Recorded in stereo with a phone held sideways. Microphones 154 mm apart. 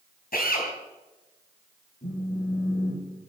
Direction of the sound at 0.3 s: 75° left (ahead or behind).